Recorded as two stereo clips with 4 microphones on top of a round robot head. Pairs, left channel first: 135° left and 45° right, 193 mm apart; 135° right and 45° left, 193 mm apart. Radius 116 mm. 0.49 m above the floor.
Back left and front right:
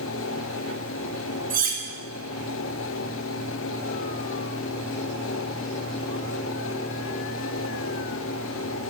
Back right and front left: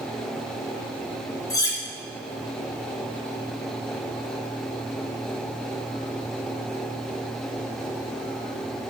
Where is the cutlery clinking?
65° right, 0.6 m.